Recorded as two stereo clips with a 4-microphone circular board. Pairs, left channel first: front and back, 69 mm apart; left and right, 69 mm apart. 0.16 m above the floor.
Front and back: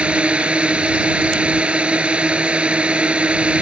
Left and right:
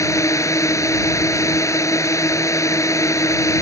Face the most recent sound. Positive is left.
turn(degrees=110)